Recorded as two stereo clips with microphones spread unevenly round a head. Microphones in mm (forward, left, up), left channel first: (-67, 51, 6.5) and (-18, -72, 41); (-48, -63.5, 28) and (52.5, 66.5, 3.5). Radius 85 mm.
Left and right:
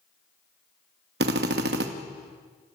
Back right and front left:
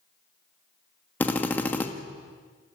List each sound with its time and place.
1.2 s a drill: 45° right, 1.7 m